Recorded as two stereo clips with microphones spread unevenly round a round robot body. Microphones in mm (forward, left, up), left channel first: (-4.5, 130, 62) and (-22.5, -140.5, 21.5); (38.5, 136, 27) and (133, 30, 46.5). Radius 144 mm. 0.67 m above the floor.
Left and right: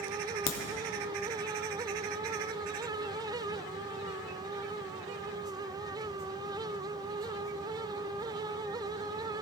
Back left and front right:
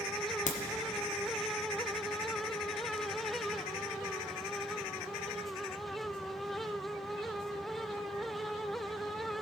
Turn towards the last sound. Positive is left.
turn(degrees=135)